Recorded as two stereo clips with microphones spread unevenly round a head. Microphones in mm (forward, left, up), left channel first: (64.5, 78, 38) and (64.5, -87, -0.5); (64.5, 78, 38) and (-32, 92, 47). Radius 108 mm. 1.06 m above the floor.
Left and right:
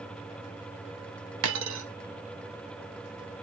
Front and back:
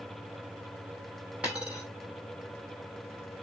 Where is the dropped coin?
105° right, 0.7 m.